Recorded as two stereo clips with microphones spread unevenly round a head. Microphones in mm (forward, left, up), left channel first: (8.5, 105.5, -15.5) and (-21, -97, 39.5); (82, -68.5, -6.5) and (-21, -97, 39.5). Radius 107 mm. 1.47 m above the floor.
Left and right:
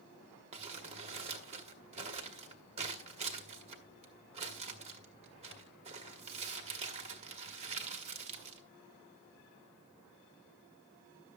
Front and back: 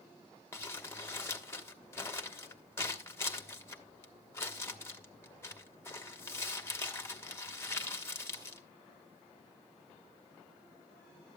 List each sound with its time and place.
0.5 s crumpling: 65° right, 1.4 m